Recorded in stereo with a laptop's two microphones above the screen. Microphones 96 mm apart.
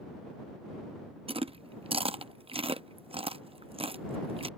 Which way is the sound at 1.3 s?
80° right.